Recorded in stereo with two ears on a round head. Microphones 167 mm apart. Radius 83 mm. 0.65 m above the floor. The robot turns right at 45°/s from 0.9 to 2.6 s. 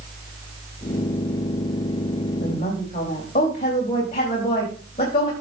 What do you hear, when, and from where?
2.4 s a woman speaking: 45° left (ahead or behind), 4 m; by 5.3 s 35° left (ahead or behind), 4 m